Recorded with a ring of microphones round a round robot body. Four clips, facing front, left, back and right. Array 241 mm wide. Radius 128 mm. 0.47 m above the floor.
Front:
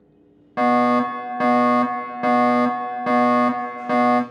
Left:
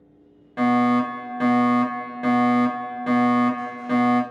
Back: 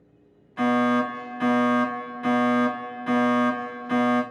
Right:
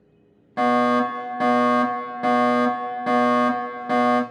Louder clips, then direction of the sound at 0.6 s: Even, front 5 dB; 10° right.